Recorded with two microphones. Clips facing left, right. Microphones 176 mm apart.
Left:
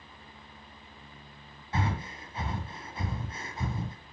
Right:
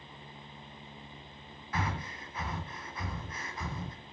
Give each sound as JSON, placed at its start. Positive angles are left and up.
{"t": 1.7, "sound": "breathing", "side_deg": 25, "distance_m": 1.6}